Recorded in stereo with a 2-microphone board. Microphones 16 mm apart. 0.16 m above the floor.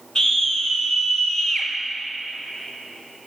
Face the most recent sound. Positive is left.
turn(degrees=35)  # may be behind; listen again after turning